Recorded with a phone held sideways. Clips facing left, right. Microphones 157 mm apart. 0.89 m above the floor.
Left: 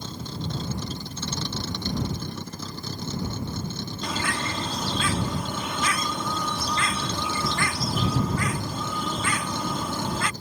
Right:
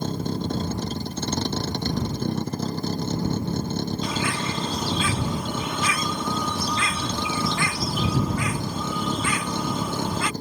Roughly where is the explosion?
I don't hear an explosion.